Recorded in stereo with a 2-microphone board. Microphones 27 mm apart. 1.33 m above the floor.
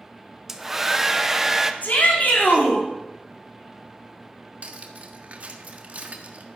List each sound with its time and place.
0.5 s a hair dryer: 15° right (ahead or behind), 0.9 m
1.8 s a shout: 85° left, 4 m
4.6 s cutlery clinking: 55° right (ahead or behind), 1.5 m